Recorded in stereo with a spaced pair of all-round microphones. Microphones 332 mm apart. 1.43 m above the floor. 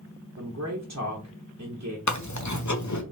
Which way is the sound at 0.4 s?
50° right (ahead or behind).